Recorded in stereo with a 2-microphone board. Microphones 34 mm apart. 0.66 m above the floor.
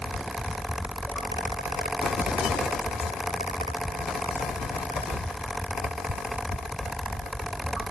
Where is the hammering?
I don't hear hammering.